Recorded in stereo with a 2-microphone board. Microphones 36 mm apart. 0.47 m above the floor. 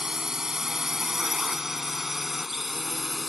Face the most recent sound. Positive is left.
turn(degrees=0)  # may be behind; listen again after turning